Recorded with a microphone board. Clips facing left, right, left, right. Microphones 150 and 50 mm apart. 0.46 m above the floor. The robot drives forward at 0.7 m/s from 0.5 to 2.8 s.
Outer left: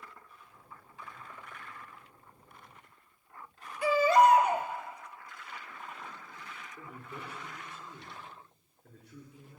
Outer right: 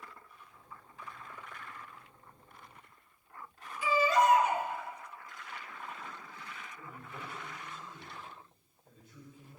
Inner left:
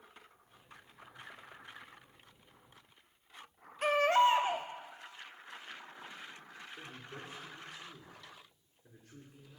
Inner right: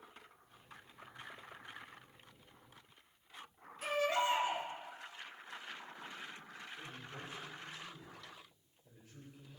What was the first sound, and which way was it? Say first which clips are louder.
A baby crying: outer left 4 dB, inner left 7 dB; 65° left (ahead or behind).